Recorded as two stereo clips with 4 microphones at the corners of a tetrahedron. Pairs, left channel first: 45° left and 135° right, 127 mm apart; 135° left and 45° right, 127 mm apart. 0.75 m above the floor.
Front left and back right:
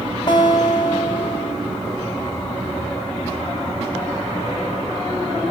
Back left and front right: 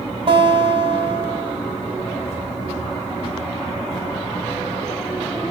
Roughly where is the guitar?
Ahead.